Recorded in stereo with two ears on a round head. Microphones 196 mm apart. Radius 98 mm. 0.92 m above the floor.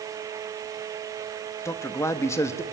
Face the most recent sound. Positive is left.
turn(degrees=15)  # may be behind; listen again after turning